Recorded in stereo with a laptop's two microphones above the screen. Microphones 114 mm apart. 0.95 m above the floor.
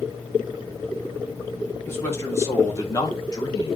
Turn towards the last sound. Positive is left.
turn(degrees=40)  # may be behind; listen again after turning